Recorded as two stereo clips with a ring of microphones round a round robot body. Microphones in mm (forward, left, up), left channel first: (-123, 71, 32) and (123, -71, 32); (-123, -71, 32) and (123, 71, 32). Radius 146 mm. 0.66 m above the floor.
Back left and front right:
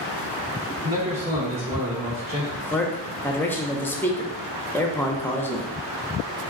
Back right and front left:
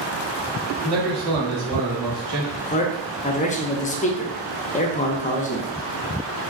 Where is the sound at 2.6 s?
135° right, 0.6 m.